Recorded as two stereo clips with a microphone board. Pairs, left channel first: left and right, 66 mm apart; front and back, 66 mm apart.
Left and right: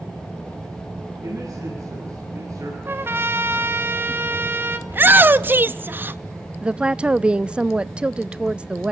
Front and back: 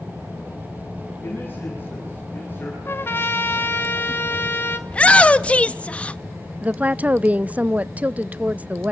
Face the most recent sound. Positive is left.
turn(degrees=-140)